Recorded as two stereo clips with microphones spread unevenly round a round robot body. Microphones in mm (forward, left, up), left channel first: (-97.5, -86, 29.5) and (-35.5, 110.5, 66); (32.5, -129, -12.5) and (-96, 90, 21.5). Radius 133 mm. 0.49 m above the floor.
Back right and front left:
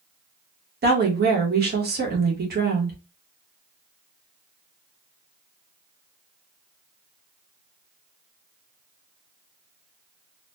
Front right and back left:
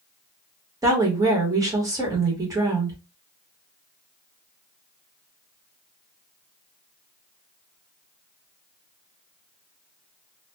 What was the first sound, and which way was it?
A woman speaking, 40° left.